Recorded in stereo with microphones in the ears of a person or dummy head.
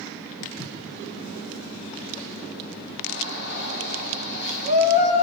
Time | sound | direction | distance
0.4 | footsteps | 45° left (ahead or behind) | 4.5 m
3.1 | a shout | 60° left (ahead or behind) | 3.5 m